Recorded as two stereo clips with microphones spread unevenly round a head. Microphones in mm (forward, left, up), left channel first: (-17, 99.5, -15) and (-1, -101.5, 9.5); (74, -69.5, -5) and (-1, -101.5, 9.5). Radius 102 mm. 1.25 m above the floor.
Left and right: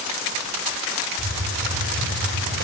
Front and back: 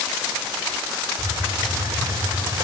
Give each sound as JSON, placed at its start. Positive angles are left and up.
{"t": 1.2, "sound": "a hiss", "azimuth_deg": -115, "distance_m": 3.0}